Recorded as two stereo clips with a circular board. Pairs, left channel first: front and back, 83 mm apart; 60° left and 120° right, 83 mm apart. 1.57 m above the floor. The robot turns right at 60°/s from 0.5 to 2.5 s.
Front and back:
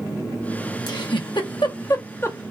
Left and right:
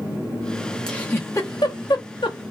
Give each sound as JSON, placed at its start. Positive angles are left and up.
{"t": 0.9, "sound": "a giggle", "azimuth_deg": -20, "distance_m": 0.7}